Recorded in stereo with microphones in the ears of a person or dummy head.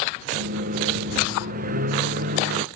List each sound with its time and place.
0.3 s a microwave: 50° right (ahead or behind)